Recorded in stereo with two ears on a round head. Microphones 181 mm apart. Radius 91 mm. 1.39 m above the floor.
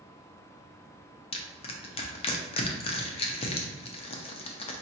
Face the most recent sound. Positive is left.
turn(degrees=30)  # may be behind; listen again after turning